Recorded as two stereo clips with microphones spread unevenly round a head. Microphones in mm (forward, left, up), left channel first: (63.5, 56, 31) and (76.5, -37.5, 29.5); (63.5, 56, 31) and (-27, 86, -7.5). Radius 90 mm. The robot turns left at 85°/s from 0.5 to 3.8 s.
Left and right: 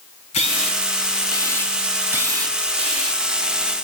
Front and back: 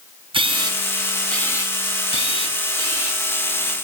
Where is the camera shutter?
125° left, 3.5 m; by 3.2 s 105° right, 3.5 m.